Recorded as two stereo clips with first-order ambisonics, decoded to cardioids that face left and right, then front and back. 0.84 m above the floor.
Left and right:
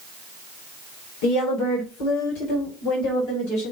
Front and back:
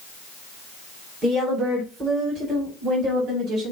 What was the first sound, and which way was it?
A woman speaking, 105° left.